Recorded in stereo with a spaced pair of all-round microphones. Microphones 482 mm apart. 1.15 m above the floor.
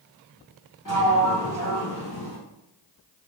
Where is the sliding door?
40° left (ahead or behind), 1.1 m.